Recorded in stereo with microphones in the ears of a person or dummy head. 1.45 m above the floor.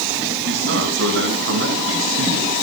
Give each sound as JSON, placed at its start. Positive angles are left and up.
{"t": 0.5, "sound": "a man speaking", "side_deg": -55, "distance_m": 9.0}